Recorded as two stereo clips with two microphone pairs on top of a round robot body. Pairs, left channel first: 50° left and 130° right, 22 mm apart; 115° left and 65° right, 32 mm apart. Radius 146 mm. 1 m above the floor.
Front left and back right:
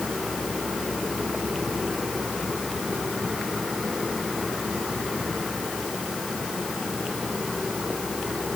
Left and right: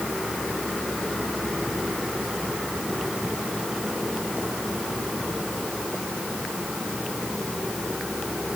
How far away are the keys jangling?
I don't hear keys jangling.